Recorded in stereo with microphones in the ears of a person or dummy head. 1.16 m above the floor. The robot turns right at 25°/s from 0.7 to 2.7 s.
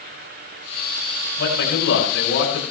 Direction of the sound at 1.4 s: 80° left.